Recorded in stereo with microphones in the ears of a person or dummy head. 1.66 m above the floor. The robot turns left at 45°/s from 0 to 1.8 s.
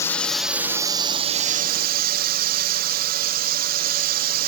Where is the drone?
15° left; by 4.5 s 65° right.